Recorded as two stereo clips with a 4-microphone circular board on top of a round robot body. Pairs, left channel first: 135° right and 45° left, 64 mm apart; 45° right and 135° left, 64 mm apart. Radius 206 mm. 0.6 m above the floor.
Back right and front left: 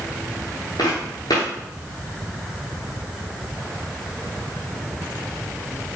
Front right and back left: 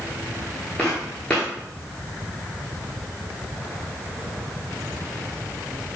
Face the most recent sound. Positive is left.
turn(degrees=-120)